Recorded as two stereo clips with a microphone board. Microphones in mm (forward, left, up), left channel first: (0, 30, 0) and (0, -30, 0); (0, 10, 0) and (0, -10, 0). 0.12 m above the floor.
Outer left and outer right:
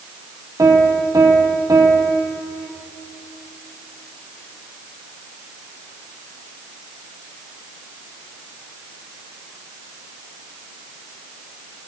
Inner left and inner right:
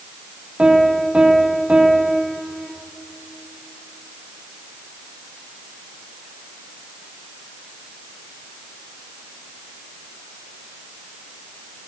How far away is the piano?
About 1.5 m.